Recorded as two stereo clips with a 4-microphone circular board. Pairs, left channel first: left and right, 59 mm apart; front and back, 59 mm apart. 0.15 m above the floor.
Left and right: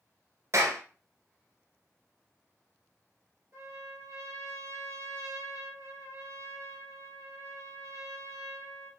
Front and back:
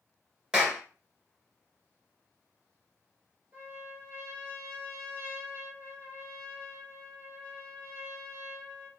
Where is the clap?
105° right, 1.5 m.